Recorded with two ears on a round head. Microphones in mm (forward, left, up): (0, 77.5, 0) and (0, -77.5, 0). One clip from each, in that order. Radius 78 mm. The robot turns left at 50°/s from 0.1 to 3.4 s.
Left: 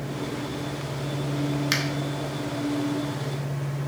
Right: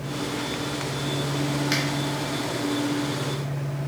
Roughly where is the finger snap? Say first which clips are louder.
Left 1 dB; centre.